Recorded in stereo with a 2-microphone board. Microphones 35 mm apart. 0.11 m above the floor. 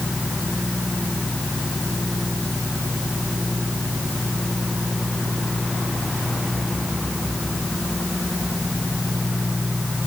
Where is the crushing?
I don't hear crushing.